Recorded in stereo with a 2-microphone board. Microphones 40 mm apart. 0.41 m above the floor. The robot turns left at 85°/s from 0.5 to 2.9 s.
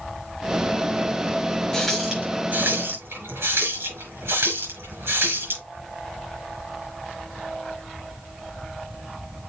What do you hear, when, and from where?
1.7 s a running tap: 15° left (ahead or behind), 5 m; by 5.6 s 80° right, 5 m